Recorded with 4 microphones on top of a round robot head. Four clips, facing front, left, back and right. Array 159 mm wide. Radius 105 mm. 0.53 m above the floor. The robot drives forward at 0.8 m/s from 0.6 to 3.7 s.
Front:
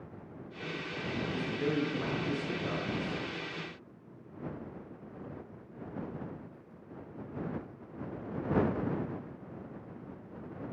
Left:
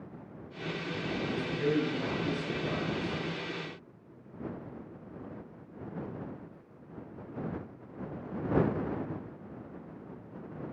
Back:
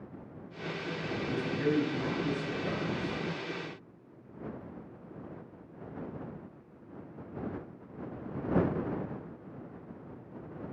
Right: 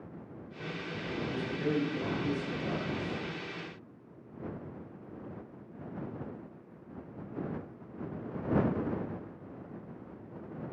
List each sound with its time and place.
1.3 s a man speaking: 165° right, 8.5 m